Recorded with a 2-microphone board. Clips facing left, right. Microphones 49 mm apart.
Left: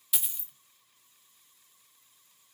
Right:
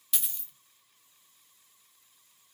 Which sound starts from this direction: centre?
A dropped coin, at 0.1 s.